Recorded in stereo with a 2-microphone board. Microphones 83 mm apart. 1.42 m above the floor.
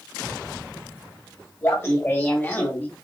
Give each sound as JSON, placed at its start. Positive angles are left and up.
{"t": 1.6, "sound": "laughter", "side_deg": 30, "distance_m": 3.0}